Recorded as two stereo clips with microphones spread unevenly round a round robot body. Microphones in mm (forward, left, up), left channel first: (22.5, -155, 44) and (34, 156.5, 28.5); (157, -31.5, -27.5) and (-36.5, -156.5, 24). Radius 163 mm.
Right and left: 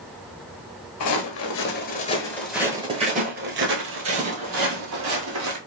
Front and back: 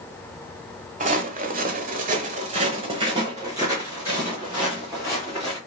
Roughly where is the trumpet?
No trumpet in this recording.